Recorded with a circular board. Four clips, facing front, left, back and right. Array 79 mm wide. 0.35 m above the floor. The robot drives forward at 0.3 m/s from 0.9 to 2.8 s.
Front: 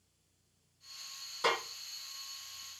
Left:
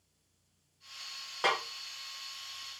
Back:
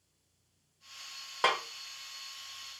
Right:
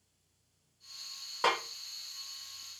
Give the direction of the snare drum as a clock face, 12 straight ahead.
6 o'clock.